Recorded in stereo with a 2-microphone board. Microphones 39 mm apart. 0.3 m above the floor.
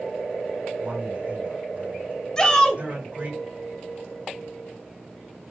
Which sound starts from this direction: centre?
A shout, at 2.4 s.